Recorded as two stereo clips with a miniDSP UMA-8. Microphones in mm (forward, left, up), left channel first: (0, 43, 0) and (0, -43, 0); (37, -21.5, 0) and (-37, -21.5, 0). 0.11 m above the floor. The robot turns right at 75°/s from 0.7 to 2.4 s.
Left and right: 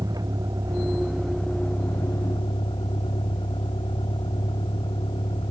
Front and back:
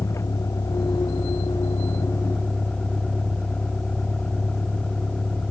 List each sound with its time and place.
0.0 s a vehicle: 45° right; by 5.5 s 80° left